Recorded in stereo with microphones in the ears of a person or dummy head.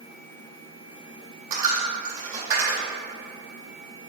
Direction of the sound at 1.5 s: 15° right (ahead or behind).